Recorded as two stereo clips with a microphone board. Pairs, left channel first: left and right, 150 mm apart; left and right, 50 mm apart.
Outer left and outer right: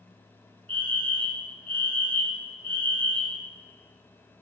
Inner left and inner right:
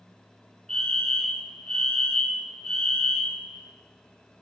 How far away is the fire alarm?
About 3 m.